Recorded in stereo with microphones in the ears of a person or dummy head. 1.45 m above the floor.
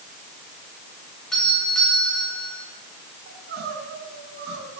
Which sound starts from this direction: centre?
A doorbell, at 1.3 s.